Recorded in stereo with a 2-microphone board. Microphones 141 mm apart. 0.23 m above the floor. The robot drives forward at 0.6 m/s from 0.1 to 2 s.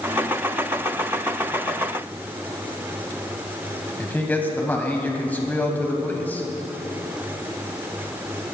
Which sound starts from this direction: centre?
A man speaking, at 4.0 s.